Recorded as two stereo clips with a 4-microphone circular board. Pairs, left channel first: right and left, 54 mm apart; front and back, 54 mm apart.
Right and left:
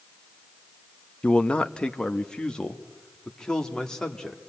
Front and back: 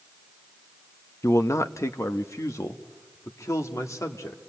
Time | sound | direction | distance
1.2 | a man speaking | 20° right | 0.8 m